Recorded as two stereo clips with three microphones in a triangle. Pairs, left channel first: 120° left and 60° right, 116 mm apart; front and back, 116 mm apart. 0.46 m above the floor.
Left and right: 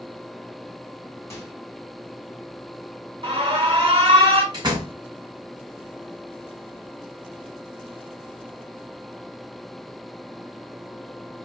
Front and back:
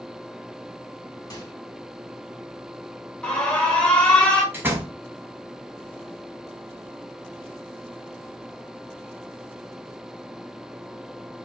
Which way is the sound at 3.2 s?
80° right.